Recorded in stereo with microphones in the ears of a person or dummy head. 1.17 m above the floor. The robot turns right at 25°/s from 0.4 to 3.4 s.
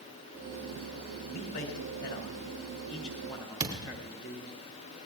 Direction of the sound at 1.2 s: 100° left.